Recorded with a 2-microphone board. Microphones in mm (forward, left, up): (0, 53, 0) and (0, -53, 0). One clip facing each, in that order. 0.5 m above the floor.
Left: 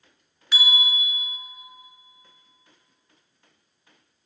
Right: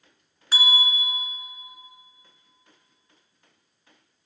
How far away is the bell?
About 0.6 m.